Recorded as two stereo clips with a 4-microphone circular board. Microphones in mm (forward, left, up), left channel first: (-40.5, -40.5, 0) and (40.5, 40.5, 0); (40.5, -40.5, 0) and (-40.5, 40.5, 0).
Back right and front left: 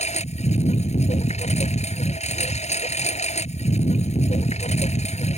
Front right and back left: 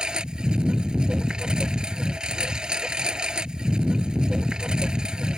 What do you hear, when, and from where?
0.0 s a lawn mower: 140° right